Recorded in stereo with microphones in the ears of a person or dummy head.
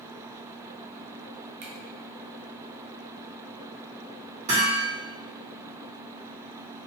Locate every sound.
1.6 s a finger snap: 35° right (ahead or behind), 0.5 m
4.5 s hammering: 35° right (ahead or behind), 1.6 m